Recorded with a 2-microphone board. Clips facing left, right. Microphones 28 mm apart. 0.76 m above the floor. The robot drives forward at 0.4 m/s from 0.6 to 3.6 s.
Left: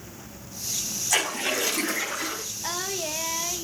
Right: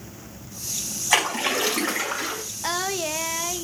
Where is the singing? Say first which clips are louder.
Right 5 dB; 20° right (ahead or behind), 0.6 m; by 3.6 s 15° right (ahead or behind), 0.7 m.